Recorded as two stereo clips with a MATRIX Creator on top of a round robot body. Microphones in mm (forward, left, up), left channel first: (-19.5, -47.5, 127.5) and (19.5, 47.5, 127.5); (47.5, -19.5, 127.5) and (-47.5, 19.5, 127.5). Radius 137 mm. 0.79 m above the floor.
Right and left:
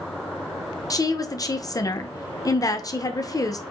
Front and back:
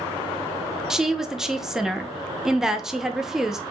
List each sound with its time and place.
0.9 s a woman speaking: 120° right, 0.8 m